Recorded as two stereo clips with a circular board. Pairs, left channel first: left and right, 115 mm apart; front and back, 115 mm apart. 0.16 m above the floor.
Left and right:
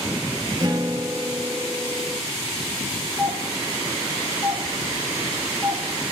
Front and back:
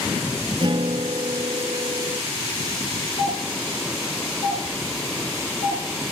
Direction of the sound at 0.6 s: 135° right.